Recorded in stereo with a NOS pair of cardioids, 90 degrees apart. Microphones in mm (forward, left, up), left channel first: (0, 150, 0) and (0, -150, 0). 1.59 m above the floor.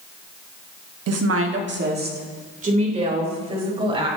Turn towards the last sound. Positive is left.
turn(degrees=-15)